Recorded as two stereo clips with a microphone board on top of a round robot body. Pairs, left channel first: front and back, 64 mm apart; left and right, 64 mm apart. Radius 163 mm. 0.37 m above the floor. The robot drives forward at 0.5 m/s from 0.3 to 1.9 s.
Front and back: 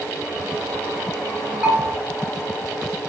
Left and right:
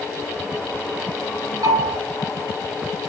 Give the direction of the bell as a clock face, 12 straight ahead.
4 o'clock.